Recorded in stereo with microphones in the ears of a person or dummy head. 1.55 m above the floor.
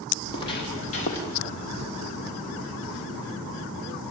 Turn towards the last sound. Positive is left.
turn(degrees=40)  # may be behind; listen again after turning